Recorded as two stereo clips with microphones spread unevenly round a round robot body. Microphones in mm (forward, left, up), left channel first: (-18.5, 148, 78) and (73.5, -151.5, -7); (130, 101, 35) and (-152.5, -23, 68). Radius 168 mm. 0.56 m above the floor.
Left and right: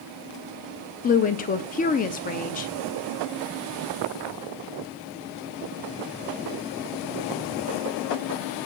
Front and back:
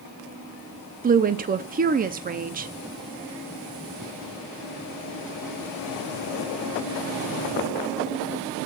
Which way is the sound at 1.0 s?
175° left.